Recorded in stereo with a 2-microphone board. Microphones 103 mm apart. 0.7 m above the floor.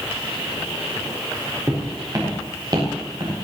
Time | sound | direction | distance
1.7 | footsteps | 30° right (ahead or behind) | 6.5 m